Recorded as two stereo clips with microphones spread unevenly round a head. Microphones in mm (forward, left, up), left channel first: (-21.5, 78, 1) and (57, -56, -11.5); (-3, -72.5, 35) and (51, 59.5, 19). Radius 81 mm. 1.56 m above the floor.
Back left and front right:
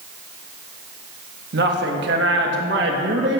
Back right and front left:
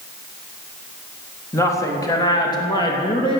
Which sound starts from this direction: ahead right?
A woman speaking, at 1.5 s.